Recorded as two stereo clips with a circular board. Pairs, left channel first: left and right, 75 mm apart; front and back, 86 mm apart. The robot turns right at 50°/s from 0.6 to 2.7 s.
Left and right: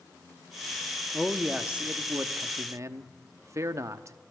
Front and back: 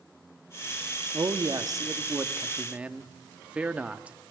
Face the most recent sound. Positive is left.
turn(degrees=-110)